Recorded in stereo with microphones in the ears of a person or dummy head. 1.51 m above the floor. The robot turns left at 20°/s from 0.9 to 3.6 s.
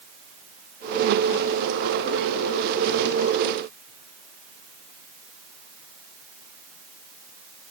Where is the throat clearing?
No throat clearing in this recording.